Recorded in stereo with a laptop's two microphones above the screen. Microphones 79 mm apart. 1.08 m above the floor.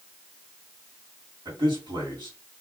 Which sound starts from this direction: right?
A man speaking, at 1.4 s.